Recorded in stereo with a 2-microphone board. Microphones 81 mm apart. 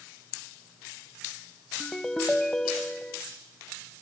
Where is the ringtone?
10° left (ahead or behind), 0.7 m.